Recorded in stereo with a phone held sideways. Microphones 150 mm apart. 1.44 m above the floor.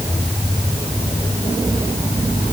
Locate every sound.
Only background noise.